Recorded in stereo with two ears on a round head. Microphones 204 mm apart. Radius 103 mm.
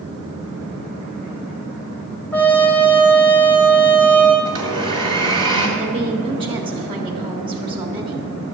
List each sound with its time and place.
2.3 s a trumpet: 10° left (ahead or behind), 1.6 m
4.5 s a blender: 25° right (ahead or behind), 2.5 m
5.8 s a woman speaking: 25° right (ahead or behind), 1.4 m